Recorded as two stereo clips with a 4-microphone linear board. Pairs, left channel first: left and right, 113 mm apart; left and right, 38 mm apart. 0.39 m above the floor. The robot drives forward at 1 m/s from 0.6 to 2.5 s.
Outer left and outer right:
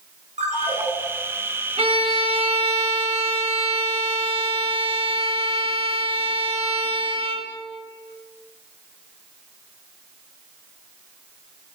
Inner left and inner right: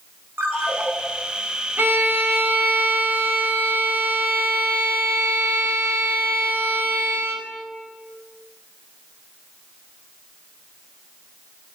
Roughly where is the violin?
Right.